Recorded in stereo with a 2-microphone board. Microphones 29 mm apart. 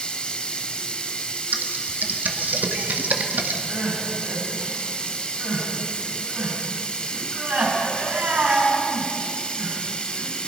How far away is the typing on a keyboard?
About 1.6 m.